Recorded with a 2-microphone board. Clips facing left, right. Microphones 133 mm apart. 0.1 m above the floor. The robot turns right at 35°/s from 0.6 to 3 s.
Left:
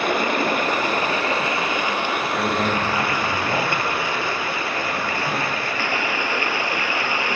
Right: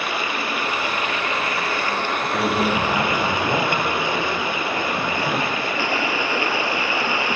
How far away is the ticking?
No ticking in this recording.